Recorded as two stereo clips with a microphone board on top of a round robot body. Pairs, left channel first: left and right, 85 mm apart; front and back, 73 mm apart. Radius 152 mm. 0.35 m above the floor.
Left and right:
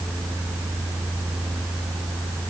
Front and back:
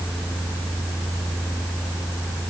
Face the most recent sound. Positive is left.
No sound to turn to.